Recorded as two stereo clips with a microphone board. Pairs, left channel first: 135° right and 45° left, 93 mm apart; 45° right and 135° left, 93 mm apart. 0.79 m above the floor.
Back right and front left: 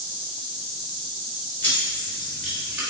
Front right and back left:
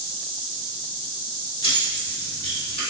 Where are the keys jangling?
65° right, 1.6 m; by 2.8 s 35° right, 1.8 m.